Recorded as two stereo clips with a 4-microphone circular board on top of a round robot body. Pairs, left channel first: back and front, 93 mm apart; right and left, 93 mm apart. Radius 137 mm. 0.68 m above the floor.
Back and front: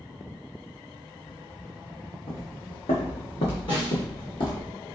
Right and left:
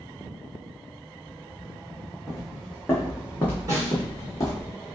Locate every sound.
2.3 s footsteps: straight behind, 2.0 m; by 4.7 s 140° right, 1.5 m
3.7 s a snare drum: 145° left, 2.5 m